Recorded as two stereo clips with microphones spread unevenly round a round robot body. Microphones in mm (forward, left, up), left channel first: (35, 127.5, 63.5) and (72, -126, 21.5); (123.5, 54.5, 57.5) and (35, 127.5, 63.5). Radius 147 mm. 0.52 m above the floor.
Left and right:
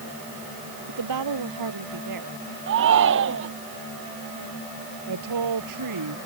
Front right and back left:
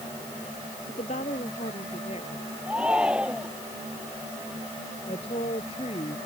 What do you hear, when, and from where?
0.9 s a woman speaking: 100° right
2.7 s a shout: 135° right
5.1 s a woman speaking: 100° right